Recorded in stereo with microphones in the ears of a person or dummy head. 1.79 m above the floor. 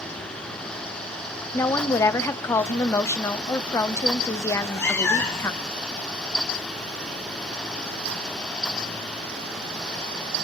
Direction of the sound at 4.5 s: 10° left (ahead or behind).